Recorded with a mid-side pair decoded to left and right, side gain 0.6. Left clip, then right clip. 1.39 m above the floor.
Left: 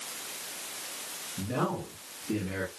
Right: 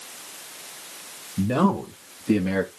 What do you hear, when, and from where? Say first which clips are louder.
1.4 s a man speaking: right 9 dB; 50° right, 2 m; by 2.7 s 70° right, 1.6 m